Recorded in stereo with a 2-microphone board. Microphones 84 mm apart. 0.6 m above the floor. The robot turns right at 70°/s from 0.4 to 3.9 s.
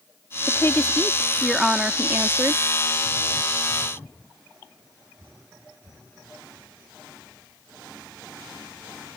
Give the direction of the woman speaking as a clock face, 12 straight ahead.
8 o'clock.